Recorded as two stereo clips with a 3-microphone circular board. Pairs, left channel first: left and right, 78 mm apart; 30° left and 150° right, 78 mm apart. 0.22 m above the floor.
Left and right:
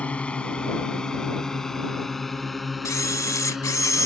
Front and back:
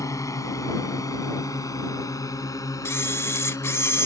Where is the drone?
25° left; by 4.1 s 5° right.